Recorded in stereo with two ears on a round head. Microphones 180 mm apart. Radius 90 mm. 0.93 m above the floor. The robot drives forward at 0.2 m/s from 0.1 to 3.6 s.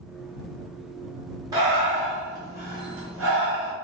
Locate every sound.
1.5 s breathing: 20° right (ahead or behind), 1.0 m; by 3.7 s 10° right (ahead or behind), 1.4 m